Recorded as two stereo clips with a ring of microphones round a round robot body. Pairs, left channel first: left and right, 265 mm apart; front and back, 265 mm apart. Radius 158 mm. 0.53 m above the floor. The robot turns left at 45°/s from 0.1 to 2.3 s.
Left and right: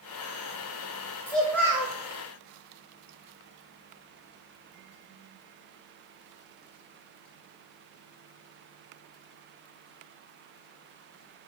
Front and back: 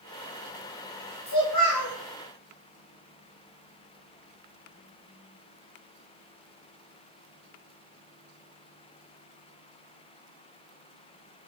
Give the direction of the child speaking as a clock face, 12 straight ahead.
12 o'clock.